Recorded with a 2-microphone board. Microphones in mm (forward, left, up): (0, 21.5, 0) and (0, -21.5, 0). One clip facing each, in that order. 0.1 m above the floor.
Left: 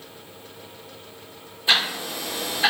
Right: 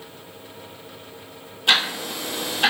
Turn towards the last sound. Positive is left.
turn(degrees=-70)  # may be behind; listen again after turning